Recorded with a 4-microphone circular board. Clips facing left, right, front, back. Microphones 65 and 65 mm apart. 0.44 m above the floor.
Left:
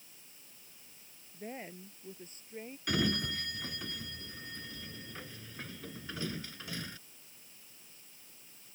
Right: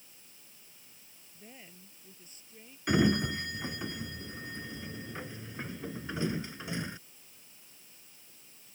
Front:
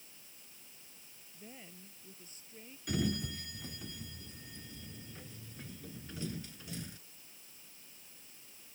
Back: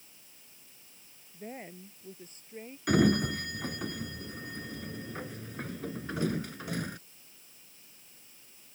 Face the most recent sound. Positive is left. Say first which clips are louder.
# right 6 dB, back 11 dB
turn(degrees=-160)